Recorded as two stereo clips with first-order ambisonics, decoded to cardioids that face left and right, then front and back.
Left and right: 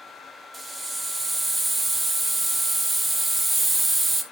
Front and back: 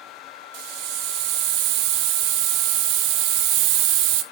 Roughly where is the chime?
I don't hear a chime.